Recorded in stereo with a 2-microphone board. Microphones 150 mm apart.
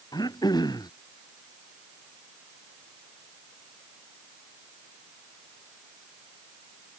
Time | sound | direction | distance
0.1 | throat clearing | 25° left (ahead or behind) | ?